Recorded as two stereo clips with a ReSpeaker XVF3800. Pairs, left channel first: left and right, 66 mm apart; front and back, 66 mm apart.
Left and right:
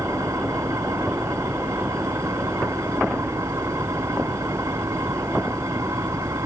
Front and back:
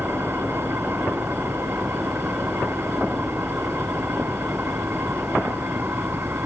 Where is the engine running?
125° right.